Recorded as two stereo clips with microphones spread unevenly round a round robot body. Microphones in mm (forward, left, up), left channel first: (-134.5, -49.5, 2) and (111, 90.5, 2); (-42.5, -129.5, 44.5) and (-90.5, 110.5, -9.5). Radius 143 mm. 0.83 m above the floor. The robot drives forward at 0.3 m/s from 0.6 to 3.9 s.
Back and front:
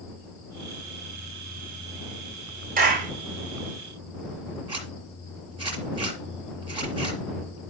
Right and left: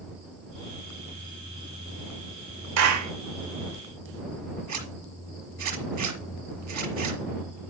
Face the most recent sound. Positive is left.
turn(degrees=105)